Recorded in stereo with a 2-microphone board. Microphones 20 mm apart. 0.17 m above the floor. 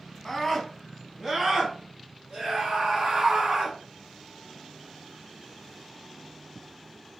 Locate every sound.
0.2 s a scream: 20° left (ahead or behind), 1.2 m; by 3.8 s 65° right (ahead or behind), 2.5 m